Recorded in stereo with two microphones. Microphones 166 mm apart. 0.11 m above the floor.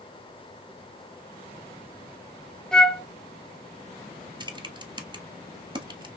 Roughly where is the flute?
Centre.